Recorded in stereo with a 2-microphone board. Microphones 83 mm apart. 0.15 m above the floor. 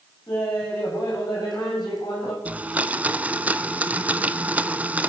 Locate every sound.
0.3 s laughter: 55° left (ahead or behind), 6 m
2.5 s a blender: 15° right (ahead or behind), 0.6 m